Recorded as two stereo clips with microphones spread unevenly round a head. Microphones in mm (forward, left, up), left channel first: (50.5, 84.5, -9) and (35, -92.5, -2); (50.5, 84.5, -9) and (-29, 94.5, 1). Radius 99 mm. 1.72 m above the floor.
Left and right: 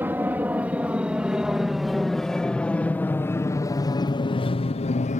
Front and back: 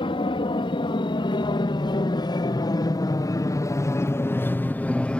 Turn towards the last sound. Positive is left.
turn(degrees=65)